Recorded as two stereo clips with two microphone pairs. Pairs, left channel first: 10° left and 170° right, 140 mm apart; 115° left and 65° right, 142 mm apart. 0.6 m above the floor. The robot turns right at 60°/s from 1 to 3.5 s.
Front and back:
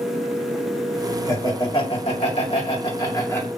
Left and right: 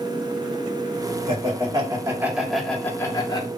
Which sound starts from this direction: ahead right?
Laughter, at 1.3 s.